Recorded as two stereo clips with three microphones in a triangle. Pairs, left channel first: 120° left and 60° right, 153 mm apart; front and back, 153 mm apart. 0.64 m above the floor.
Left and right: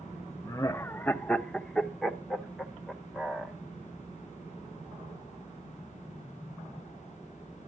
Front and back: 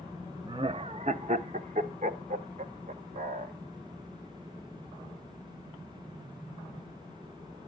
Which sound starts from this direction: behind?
Laughter, at 0.5 s.